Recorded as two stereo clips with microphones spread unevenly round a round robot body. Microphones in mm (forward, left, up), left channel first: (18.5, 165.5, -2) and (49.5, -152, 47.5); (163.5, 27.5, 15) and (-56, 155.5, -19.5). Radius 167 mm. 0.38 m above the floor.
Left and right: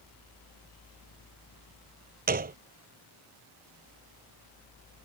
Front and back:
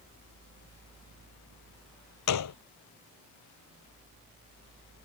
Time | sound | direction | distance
2.3 | a gunshot | 20° right | ?